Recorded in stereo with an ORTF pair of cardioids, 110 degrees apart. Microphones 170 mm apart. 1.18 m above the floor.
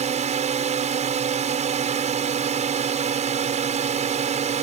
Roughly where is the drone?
Ahead right.